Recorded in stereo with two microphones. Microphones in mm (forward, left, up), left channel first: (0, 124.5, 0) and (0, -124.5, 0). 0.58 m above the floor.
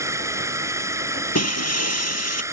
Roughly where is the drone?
Centre.